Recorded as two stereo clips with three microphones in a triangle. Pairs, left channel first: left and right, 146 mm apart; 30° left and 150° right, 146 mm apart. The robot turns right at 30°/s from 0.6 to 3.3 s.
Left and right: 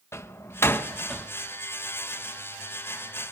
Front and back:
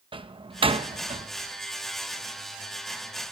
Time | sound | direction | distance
0.1 | a door slam | 160° left | 0.6 m